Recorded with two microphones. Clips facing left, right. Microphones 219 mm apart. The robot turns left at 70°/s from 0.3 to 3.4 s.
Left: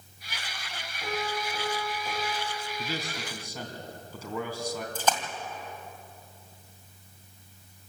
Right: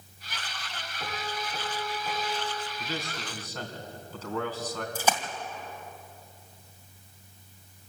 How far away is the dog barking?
No dog barking in this recording.